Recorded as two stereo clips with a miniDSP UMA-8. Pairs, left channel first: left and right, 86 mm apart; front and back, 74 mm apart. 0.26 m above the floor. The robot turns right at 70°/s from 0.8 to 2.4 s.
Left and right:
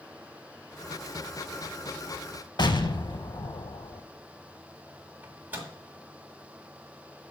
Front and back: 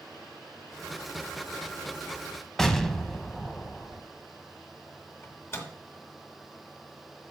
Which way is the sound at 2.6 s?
85° left.